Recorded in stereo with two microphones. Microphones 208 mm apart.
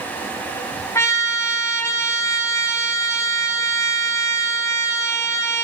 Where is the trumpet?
15° left (ahead or behind), 1.9 m.